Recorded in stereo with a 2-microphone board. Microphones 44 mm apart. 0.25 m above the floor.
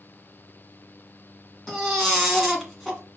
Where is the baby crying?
Centre (ahead or behind), 1.9 m.